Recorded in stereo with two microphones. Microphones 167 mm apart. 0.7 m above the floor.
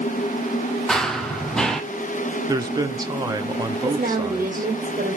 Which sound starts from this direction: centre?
Running footsteps, at 0.9 s.